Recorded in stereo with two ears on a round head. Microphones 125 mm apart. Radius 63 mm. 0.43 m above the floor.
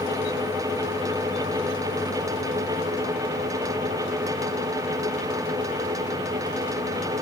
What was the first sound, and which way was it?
Only background noise.